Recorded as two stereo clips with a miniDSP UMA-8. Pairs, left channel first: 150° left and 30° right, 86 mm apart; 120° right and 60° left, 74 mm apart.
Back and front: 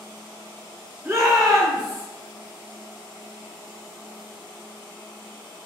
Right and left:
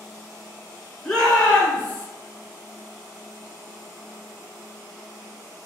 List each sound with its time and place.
1.1 s a shout: 50° right, 1.5 m; by 2.0 s 55° right, 2.5 m